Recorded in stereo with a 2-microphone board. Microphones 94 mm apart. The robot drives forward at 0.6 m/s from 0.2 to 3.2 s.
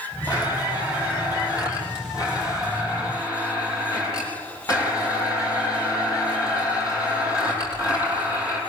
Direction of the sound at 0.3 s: 45° left (ahead or behind).